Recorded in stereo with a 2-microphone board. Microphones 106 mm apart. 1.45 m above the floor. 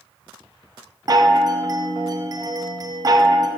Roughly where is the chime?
Right.